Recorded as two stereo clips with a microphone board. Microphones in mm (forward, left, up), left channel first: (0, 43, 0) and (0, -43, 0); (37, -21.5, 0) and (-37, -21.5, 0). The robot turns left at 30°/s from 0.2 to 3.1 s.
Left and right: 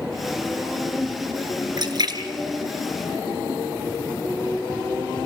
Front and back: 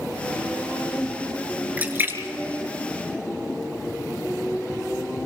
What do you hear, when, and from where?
1.8 s a splash: 115° right, 3.5 m; by 3.6 s 155° right, 3.5 m